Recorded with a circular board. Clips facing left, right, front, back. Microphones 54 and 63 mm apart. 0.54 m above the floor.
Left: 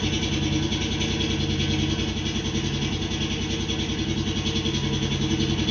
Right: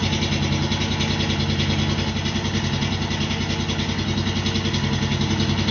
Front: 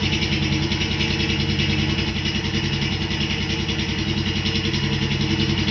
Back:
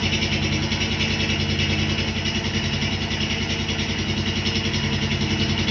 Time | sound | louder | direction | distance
0.0 | an engine running | right 2 dB, front 1 dB | 100° right | 0.8 m